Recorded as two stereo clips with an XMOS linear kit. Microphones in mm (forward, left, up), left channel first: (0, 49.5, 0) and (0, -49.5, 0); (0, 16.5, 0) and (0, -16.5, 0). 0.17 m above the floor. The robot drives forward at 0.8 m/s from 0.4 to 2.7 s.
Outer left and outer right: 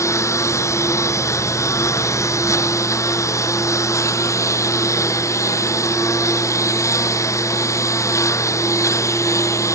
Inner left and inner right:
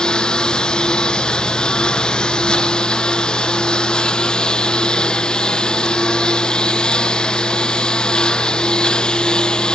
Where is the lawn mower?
30° left (ahead or behind).